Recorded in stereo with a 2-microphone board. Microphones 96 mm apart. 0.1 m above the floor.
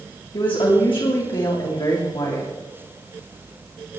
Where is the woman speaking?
60° left (ahead or behind), 6 m.